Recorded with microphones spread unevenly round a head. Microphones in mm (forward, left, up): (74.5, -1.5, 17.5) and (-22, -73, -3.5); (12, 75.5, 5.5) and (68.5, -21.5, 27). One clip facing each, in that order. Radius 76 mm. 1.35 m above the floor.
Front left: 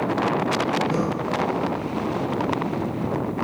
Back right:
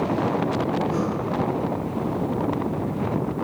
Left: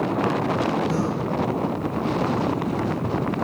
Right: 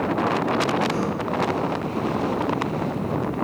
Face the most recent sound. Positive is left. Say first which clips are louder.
# front left 1 dB, left 1 dB
turn(degrees=60)